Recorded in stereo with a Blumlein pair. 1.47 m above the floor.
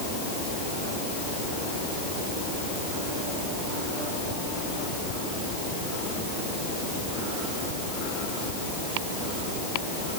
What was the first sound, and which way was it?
Only background noise.